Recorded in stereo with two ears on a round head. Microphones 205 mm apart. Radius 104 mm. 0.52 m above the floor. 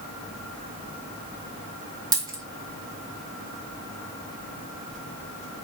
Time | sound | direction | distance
2.1 | a dropped coin | 20° right (ahead or behind) | 0.8 m